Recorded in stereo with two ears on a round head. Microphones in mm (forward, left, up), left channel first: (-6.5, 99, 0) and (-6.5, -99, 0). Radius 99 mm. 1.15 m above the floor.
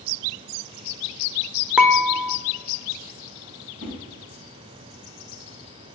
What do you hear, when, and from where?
1.8 s dishes clattering: 5° right (ahead or behind), 0.5 m
3.8 s a whoosh: 80° right, 3 m